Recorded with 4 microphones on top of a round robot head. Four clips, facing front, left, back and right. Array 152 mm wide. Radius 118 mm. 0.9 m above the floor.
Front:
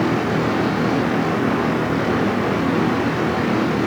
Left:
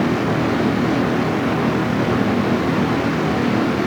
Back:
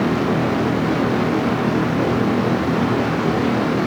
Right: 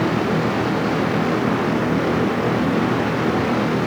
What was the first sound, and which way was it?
Only background noise.